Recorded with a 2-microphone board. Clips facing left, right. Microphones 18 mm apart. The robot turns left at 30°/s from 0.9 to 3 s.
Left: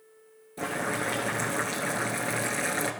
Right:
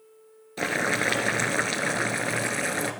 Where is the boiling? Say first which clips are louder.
Right 5 dB; 115° right, 0.7 m; by 2.9 s 175° right, 0.7 m.